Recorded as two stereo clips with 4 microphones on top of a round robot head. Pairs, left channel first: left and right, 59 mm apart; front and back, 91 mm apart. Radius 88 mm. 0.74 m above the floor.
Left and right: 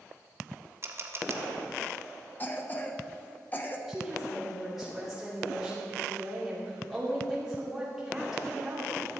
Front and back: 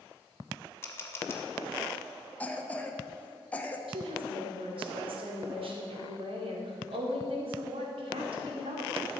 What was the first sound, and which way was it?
A camera shutter, 60° right.